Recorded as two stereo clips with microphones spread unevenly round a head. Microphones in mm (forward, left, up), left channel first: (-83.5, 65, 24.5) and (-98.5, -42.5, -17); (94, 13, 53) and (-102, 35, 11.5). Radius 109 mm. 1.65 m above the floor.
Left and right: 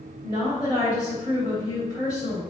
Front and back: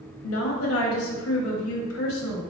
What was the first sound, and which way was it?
A woman speaking, 10° left.